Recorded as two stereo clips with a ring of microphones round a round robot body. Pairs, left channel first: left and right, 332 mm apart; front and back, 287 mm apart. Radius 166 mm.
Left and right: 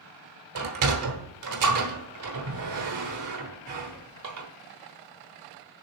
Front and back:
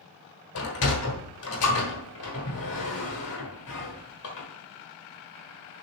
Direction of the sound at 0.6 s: 50° right.